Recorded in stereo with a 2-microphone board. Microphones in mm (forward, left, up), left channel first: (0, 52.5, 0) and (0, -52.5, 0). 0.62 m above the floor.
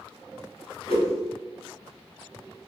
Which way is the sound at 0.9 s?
60° left (ahead or behind).